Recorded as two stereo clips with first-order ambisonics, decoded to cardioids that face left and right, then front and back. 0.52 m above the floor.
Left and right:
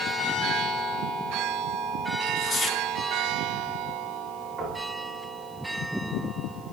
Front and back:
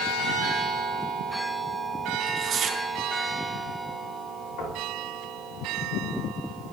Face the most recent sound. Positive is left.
turn(degrees=-15)